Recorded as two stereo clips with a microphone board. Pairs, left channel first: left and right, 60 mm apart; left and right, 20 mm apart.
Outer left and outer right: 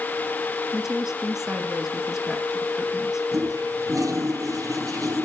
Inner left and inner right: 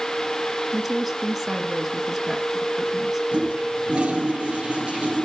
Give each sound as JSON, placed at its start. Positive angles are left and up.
{"t": 0.7, "sound": "a woman speaking", "side_deg": -5, "distance_m": 1.7}
{"t": 3.3, "sound": "a toilet flushing", "side_deg": -70, "distance_m": 2.5}